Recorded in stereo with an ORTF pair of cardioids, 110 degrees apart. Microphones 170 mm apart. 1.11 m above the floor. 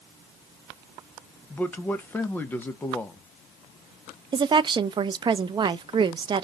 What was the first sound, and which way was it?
A man speaking, 10° left.